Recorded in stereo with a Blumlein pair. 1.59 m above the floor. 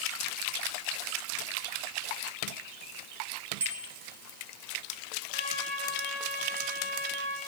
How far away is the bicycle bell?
About 3.5 m.